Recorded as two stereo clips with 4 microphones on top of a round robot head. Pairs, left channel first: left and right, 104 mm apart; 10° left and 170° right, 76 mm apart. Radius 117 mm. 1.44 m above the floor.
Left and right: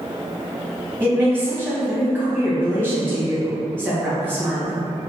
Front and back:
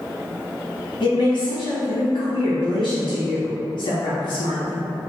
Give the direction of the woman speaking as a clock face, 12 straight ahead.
1 o'clock.